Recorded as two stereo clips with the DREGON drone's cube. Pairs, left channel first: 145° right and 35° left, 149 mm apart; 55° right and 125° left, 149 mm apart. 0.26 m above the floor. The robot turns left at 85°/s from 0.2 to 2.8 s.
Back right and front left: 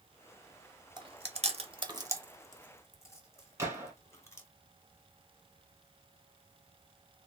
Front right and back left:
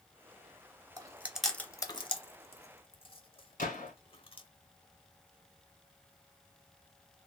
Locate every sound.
1.0 s chewing: 75° left, 0.7 m; by 4.5 s 85° right, 0.7 m
3.6 s a gunshot: 40° right, 1.2 m